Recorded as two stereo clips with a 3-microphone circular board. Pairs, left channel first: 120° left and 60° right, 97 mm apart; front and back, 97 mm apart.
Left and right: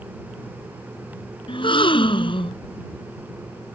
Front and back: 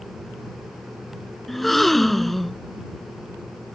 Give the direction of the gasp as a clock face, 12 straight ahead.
9 o'clock.